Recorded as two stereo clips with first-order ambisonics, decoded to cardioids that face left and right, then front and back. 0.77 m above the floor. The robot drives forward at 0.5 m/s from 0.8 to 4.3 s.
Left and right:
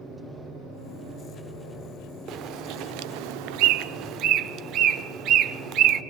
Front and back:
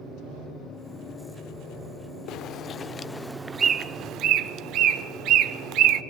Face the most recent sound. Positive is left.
turn(degrees=-135)